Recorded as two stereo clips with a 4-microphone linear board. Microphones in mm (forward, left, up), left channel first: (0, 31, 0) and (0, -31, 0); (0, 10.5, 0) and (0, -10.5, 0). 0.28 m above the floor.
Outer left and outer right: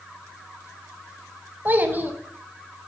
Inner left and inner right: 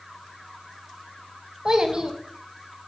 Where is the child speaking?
30° right (ahead or behind), 1.2 m.